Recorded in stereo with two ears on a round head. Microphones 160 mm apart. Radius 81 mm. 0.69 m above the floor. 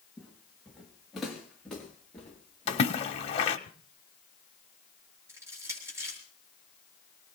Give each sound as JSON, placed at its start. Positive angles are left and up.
{"t": 0.2, "sound": "footsteps", "side_deg": -5, "distance_m": 3.0}
{"t": 2.7, "sound": "a splash", "side_deg": 35, "distance_m": 1.5}
{"t": 5.3, "sound": "crushing", "side_deg": -15, "distance_m": 6.5}